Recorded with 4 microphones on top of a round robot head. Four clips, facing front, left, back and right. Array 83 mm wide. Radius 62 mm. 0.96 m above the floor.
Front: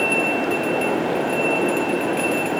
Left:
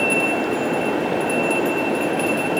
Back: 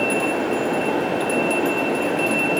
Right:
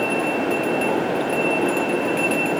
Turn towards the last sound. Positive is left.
No sound to turn to.